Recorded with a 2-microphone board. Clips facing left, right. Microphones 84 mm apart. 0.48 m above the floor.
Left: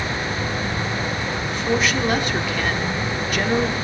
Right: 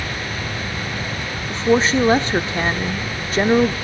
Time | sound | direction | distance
1.5 | a woman speaking | 30° right (ahead or behind) | 0.8 m